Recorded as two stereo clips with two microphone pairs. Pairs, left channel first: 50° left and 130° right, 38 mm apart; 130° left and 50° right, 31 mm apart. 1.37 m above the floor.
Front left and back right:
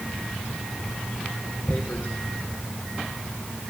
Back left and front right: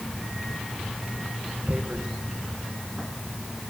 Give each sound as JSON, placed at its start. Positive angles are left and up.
{"t": 1.7, "sound": "tearing paper", "azimuth_deg": 0, "distance_m": 1.2}